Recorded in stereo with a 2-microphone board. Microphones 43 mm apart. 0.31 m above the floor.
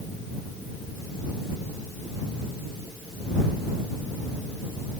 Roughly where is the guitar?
No guitar in this recording.